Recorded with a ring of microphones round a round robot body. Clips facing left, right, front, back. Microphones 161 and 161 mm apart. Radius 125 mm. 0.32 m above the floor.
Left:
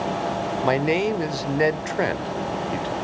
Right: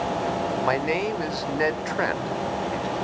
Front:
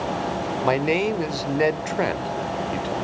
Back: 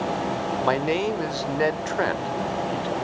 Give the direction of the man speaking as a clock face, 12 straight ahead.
10 o'clock.